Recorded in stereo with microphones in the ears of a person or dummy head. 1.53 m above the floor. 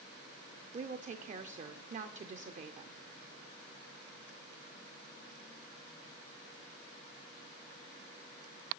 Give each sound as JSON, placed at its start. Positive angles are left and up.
{"t": 0.7, "sound": "a woman speaking", "side_deg": -35, "distance_m": 0.6}